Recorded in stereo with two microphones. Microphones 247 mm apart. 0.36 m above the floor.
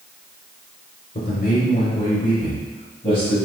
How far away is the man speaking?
About 1.0 m.